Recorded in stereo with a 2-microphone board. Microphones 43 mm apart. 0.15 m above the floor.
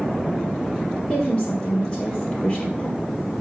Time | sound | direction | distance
1.1 | a woman speaking | 30° left (ahead or behind) | 3.5 m